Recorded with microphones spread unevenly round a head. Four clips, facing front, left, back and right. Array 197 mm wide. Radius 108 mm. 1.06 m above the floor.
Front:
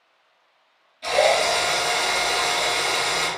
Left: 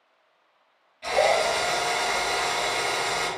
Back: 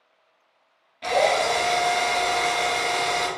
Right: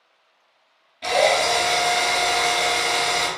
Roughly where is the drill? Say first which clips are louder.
Right 3 dB, front 1 dB; behind right.